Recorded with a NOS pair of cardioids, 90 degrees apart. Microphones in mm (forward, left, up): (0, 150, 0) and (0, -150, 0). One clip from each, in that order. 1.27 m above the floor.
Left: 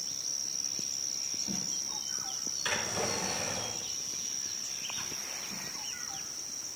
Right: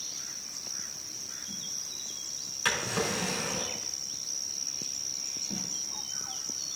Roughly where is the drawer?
Ahead right.